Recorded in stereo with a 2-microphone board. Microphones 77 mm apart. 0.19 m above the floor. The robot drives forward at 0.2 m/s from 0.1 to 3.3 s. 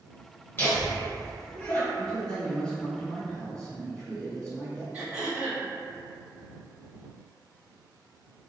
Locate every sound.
0.6 s laughter: 30° left (ahead or behind), 1.9 m; by 1.9 s 25° left (ahead or behind), 2 m
2.0 s a man speaking: 15° left (ahead or behind), 1.7 m
4.9 s throat clearing: 15° right (ahead or behind), 1.8 m